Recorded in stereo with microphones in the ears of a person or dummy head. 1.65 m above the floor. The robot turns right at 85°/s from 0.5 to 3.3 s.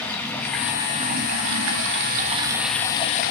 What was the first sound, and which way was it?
Running water, 175° left.